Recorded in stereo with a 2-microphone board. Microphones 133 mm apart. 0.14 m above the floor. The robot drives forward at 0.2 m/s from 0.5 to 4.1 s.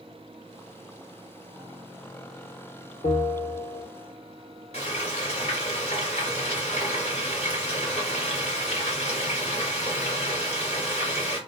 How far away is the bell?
About 1.5 m.